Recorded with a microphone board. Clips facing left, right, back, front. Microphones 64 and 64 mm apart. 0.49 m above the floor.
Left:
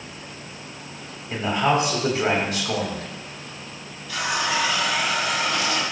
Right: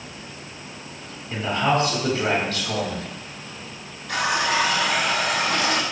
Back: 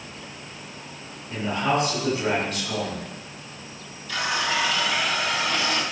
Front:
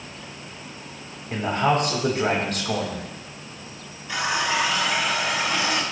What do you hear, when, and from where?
1.3 s a man speaking: 20° left, 3 m
4.1 s a running tap: 70° right, 2.5 m